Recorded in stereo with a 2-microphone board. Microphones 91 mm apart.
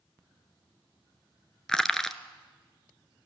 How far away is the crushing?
About 1.1 m.